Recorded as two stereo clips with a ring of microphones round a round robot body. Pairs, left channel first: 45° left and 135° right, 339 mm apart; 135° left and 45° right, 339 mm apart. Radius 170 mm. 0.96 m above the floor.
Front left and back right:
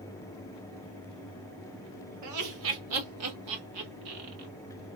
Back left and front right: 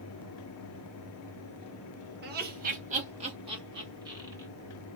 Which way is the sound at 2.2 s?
100° right.